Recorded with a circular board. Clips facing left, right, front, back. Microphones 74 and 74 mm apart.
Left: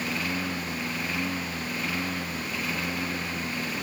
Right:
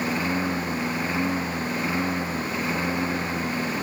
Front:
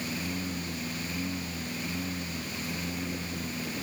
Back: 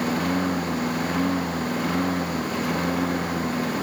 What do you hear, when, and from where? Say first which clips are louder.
0.0 s a lawn mower: right 5 dB, back 11 dB; 155° right